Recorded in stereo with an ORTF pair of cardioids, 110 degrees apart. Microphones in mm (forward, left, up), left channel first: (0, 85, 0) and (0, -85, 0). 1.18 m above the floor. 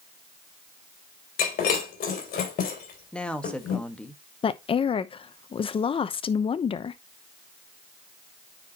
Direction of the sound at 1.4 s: 55° left.